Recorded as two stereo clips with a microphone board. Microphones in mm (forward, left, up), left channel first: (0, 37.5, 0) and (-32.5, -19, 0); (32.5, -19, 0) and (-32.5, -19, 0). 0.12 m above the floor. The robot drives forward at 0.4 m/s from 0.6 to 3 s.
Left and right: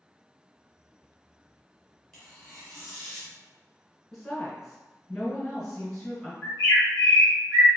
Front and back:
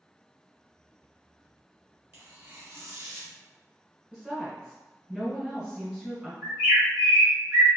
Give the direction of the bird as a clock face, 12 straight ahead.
7 o'clock.